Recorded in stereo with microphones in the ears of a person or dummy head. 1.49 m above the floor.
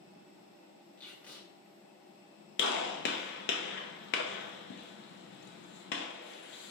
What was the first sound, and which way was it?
Tape being pulled, 5° left (ahead or behind).